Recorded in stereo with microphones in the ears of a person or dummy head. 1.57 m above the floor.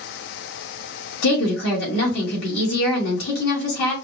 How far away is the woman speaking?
About 2.5 m.